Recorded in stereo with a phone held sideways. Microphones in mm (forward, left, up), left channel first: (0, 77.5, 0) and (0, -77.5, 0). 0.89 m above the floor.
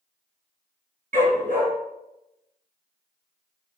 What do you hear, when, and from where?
1.1 s a dog barking: 65° right (ahead or behind), 3.5 m